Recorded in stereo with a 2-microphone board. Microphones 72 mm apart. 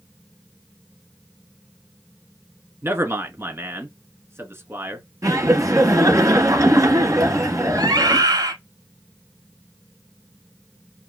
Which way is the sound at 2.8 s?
35° right (ahead or behind).